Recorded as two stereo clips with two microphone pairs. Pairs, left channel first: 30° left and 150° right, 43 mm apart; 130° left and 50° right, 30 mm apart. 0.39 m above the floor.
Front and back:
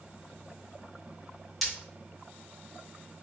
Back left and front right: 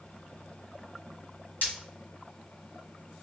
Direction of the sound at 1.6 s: 125° left.